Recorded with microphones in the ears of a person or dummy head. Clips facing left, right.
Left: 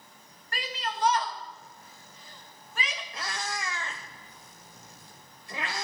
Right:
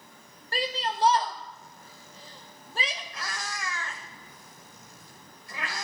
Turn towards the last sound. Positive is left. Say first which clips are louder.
# left 2 dB
turn(degrees=30)  # may be behind; listen again after turning